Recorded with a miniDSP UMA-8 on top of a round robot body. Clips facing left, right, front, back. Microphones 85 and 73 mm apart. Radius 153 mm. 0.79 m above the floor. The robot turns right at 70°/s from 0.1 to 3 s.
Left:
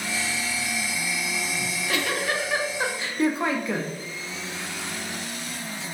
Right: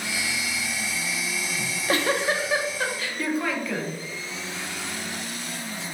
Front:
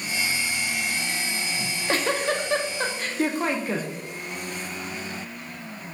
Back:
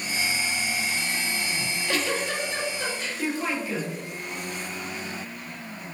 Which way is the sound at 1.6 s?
70° right.